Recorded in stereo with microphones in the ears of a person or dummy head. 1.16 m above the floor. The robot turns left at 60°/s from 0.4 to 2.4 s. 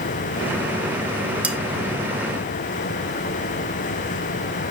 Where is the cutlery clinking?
10° right (ahead or behind), 0.9 m; by 1.6 s centre (ahead or behind), 0.9 m.